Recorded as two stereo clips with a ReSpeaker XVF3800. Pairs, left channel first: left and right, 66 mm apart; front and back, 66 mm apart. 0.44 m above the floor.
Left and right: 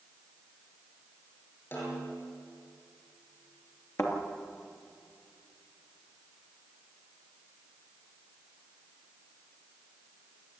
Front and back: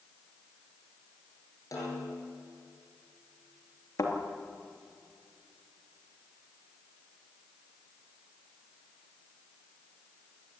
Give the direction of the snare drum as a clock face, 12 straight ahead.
11 o'clock.